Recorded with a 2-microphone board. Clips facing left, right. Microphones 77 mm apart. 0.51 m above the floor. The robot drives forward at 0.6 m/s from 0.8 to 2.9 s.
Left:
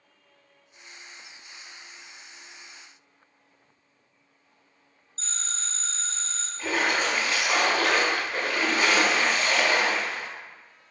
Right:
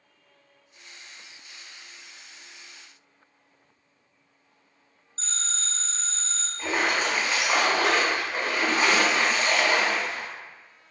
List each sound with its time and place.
5.2 s a phone ringing: 45° right (ahead or behind), 1.3 m
6.6 s a splash: 20° right (ahead or behind), 0.8 m